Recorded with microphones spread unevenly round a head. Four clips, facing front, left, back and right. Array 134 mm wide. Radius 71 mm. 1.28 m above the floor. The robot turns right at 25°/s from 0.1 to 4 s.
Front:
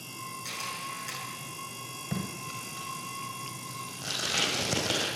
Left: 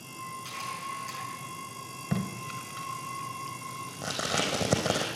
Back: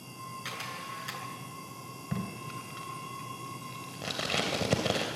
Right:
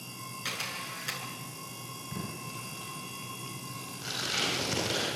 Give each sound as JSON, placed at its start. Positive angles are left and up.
{"t": 0.5, "sound": "a camera shutter", "azimuth_deg": -105, "distance_m": 7.0}
{"t": 2.1, "sound": "tape being pulled", "azimuth_deg": 75, "distance_m": 3.5}